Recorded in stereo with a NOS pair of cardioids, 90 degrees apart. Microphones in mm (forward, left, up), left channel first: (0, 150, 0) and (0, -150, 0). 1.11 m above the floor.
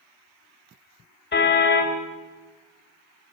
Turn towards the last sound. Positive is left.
turn(degrees=35)